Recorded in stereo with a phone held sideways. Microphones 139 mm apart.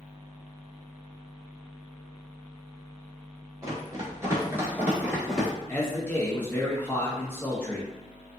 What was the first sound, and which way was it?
Running footsteps, 25° right (ahead or behind).